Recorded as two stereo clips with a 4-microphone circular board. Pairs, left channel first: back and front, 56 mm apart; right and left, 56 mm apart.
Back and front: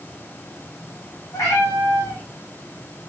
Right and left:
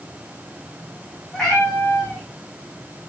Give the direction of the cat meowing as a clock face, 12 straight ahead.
6 o'clock.